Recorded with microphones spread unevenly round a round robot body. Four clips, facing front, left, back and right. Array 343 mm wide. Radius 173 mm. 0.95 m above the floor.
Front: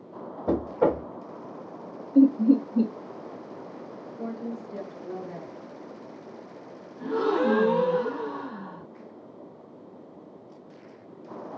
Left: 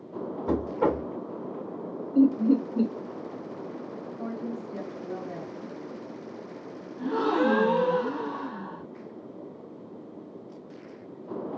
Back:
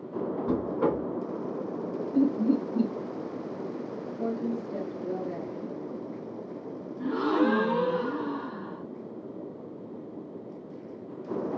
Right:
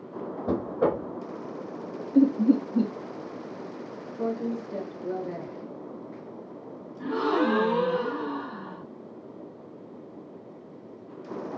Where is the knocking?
10° right, 0.6 m.